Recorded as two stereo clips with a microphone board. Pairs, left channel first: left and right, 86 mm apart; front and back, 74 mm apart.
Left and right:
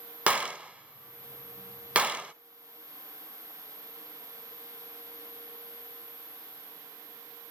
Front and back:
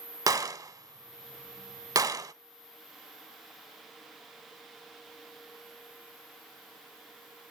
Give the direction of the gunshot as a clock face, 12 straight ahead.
5 o'clock.